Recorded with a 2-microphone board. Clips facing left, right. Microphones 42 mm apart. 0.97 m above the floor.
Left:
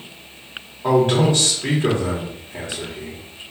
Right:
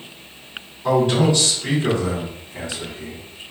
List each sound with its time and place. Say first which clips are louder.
0.8 s a man speaking: left 1 dB; 55° left (ahead or behind), 1.5 m